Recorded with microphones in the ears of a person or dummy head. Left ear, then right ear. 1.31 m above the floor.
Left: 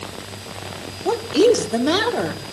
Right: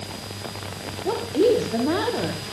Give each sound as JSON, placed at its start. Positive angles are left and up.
{"t": 1.1, "sound": "a woman speaking", "side_deg": 85, "distance_m": 3.5}